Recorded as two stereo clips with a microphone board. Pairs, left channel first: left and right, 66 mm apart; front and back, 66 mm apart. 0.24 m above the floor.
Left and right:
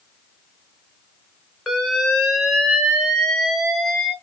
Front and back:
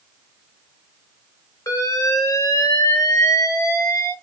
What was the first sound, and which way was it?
An alarm, 5° left.